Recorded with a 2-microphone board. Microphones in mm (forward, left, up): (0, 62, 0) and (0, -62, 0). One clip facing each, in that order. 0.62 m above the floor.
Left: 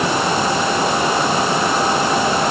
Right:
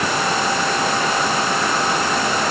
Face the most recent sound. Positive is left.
No sound to turn to.